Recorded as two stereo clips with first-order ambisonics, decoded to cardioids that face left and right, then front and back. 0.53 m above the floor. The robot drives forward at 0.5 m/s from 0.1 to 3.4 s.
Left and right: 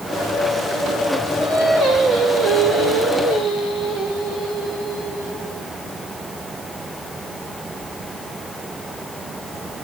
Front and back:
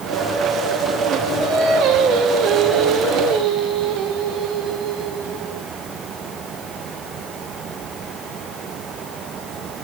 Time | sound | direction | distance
1.4 | singing | 140° right | 2.0 m